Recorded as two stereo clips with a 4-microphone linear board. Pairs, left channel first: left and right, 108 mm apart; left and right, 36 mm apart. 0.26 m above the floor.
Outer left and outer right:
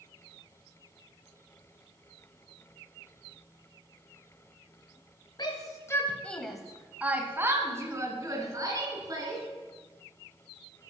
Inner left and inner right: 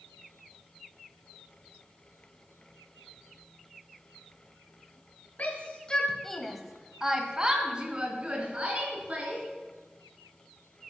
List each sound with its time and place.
5.4 s a shout: 40° left (ahead or behind), 1.6 m; by 9.4 s 35° right (ahead or behind), 4.5 m